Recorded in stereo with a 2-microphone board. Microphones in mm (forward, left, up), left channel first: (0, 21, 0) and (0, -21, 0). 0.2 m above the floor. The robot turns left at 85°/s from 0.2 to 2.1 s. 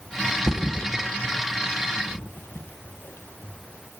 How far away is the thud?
About 2 m.